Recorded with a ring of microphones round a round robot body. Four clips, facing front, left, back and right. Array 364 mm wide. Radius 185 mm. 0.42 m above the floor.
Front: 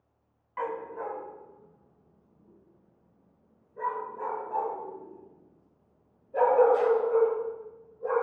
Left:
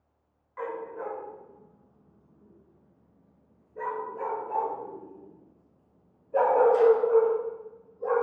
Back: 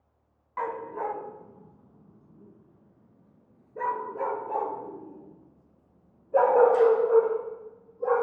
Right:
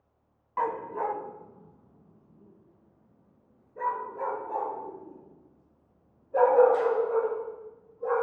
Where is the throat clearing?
I don't hear throat clearing.